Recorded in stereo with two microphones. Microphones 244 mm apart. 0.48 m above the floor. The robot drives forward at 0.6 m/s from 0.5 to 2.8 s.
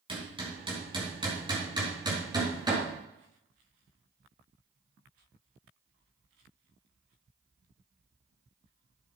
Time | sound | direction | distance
0.1 | hammering | 20° right (ahead or behind) | 4.5 m